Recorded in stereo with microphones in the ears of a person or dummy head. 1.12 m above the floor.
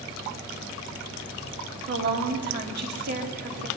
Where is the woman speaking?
55° right (ahead or behind), 2.5 m.